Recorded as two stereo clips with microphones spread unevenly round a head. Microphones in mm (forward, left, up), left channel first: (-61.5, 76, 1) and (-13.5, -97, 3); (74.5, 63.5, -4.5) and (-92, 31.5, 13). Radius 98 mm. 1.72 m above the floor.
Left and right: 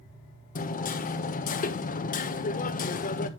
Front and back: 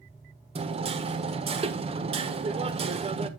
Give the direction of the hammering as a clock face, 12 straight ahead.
7 o'clock.